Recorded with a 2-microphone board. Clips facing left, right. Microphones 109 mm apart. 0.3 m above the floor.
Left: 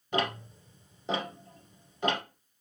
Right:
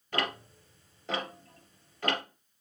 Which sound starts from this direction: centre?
Ticking, at 0.1 s.